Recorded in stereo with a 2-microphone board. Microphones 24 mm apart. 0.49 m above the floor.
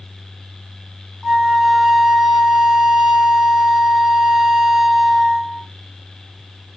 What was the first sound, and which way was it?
A flute, 10° right (ahead or behind).